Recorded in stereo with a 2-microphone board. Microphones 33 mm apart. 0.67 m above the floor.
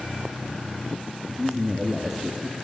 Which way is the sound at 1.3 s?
5° right (ahead or behind).